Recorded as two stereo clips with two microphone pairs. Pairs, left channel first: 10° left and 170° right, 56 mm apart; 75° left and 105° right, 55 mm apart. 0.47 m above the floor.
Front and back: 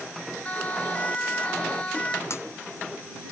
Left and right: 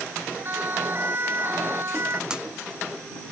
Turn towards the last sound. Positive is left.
turn(degrees=-30)